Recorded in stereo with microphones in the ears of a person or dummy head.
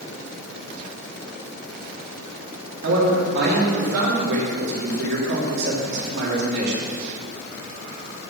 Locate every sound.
2.8 s a man speaking: 60° right (ahead or behind), 2.5 m